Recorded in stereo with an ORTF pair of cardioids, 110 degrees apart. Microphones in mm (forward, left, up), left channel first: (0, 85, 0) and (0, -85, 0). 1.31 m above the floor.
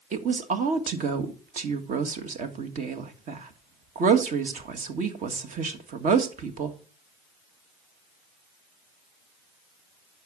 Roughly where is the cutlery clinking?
I don't hear cutlery clinking.